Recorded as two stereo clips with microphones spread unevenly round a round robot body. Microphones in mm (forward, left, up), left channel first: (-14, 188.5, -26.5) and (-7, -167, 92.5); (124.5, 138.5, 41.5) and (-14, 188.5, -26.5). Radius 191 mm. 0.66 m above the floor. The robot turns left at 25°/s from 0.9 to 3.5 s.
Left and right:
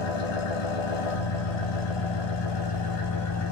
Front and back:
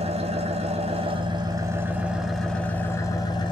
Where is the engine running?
100° left, 1.0 m; by 3.5 s 35° left, 1.0 m.